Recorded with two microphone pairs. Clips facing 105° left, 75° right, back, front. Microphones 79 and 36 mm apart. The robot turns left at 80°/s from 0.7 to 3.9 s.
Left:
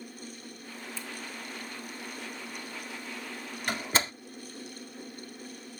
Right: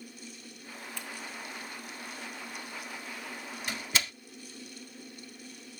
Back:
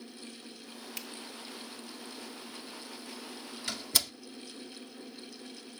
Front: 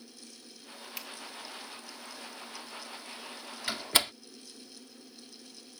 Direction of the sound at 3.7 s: 75° left.